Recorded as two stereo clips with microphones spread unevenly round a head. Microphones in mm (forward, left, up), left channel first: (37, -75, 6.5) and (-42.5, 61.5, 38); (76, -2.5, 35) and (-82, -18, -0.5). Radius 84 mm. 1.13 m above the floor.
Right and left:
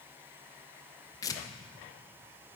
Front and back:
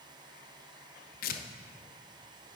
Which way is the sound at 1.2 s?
15° right.